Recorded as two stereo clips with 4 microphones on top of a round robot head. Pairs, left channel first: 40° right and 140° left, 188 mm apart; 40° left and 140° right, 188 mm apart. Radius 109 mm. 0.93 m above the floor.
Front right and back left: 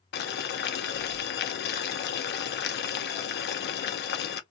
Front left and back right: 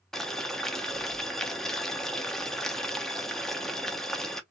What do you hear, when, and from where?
0.1 s boiling: 45° right, 0.6 m